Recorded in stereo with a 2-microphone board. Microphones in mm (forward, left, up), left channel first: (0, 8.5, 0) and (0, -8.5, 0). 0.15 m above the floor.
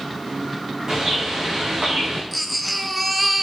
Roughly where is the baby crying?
Centre.